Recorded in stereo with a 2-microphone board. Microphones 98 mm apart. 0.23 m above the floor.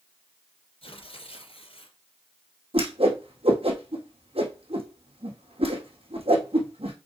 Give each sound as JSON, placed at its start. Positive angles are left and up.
{"t": 0.8, "sound": "tearing paper", "side_deg": 70, "distance_m": 2.5}
{"t": 2.7, "sound": "a whoosh", "side_deg": -75, "distance_m": 2.5}